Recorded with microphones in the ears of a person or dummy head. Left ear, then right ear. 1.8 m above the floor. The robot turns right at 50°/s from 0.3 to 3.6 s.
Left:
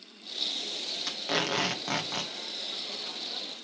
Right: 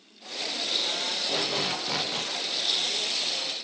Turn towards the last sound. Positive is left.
turn(degrees=-130)